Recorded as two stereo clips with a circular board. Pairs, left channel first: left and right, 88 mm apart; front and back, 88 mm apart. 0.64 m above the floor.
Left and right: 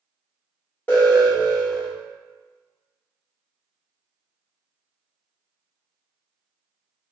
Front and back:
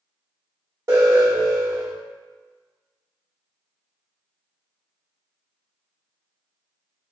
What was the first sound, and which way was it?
An alarm, 150° left.